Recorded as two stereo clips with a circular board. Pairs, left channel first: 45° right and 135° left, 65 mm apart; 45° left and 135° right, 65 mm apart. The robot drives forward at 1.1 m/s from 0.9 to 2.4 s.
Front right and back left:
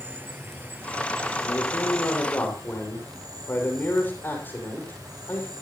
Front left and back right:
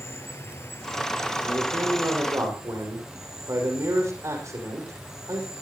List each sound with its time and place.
0.0 s an insect: 85° left, 1.3 m; by 5.6 s 145° left, 2 m
1.4 s a man speaking: 90° right, 6 m; by 5.5 s 100° right, 6 m